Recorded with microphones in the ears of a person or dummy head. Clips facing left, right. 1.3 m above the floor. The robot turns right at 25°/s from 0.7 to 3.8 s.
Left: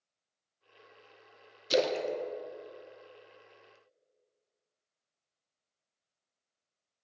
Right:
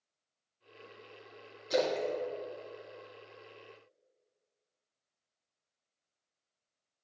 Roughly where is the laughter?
No laughter in this recording.